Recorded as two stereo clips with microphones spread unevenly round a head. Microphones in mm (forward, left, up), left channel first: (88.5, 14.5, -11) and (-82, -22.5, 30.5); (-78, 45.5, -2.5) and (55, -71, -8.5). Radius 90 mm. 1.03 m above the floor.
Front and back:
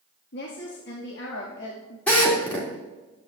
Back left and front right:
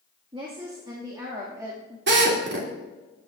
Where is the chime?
I don't hear a chime.